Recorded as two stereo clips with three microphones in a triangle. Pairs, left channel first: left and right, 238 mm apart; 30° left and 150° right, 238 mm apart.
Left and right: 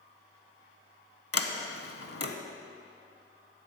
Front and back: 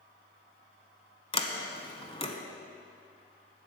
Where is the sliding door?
95° left, 0.8 m.